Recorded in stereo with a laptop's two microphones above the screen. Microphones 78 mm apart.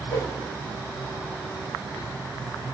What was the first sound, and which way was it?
A whoosh, 55° left (ahead or behind).